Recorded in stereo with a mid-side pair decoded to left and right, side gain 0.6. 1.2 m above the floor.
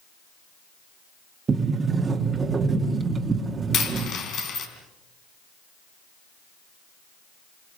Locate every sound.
1.5 s a sliding door: 30° right, 2 m
3.7 s a dropped coin: 55° left, 3.5 m